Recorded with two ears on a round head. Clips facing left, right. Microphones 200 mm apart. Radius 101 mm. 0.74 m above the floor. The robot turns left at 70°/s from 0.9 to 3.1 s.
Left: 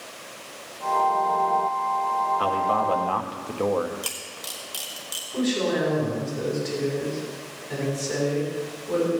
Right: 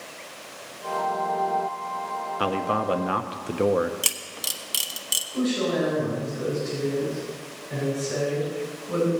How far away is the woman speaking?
About 5.5 m.